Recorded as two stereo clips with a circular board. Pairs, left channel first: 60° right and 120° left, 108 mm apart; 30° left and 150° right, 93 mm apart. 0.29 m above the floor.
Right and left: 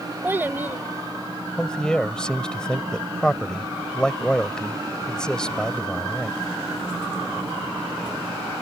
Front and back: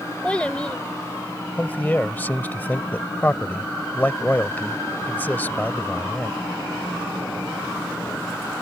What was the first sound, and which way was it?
A child speaking, 90° left.